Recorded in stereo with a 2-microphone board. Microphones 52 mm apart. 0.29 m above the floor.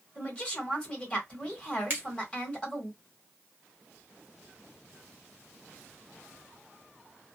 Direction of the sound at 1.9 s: 40° right (ahead or behind).